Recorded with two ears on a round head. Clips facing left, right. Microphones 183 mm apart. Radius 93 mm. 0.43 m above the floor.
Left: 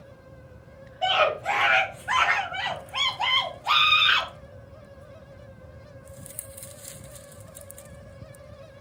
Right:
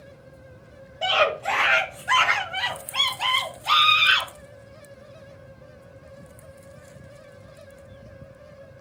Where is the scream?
60° right (ahead or behind), 1.6 m; by 4.3 s 30° right (ahead or behind), 3.5 m.